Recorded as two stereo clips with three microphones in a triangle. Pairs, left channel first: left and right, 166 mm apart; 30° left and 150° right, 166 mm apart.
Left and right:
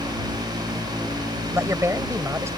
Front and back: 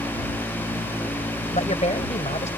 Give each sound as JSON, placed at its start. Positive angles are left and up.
{"t": 1.5, "sound": "a man speaking", "azimuth_deg": -15}